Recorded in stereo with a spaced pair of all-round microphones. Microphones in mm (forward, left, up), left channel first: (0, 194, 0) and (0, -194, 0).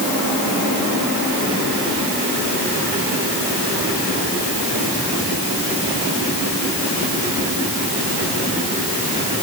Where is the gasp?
No gasp in this recording.